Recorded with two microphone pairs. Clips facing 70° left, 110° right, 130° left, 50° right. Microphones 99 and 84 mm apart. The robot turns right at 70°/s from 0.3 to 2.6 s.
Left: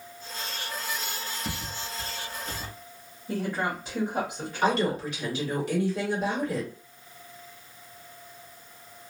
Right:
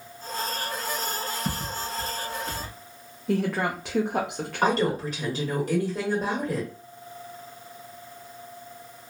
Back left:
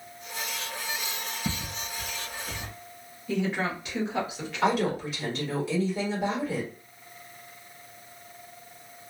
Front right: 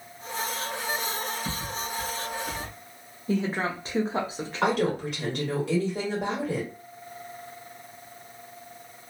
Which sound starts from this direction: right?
A woman speaking, at 3.3 s.